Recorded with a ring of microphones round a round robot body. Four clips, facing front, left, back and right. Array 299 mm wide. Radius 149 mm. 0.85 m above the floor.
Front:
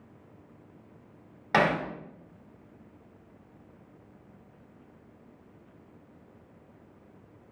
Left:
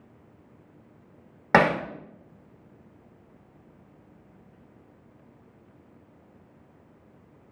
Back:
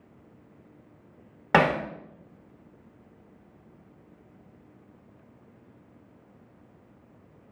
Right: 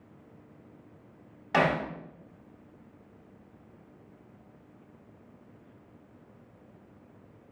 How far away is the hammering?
About 1.1 m.